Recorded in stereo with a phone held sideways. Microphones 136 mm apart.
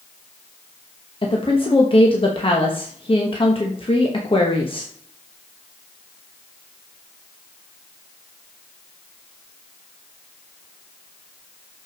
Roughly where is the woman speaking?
Left.